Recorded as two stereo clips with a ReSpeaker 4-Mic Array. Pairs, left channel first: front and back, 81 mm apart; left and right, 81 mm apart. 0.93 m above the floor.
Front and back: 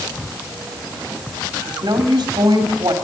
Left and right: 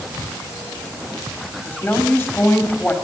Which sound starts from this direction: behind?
A woman speaking, at 1.6 s.